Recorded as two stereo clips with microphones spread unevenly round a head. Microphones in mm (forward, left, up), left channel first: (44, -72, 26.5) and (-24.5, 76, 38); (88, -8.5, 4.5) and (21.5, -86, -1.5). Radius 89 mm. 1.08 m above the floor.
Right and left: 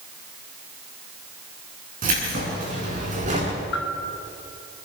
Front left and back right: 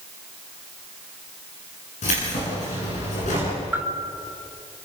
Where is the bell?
60° right, 3 m.